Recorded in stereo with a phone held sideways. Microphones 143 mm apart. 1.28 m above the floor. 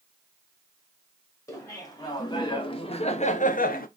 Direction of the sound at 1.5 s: 20° left (ahead or behind).